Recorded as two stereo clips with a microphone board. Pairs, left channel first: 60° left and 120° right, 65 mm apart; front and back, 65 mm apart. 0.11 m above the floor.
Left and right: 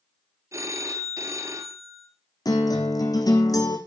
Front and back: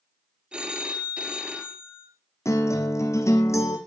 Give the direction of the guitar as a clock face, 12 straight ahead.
11 o'clock.